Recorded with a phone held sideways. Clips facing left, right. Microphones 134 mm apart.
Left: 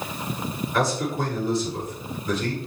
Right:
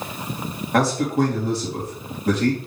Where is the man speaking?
75° right (ahead or behind), 3.5 m.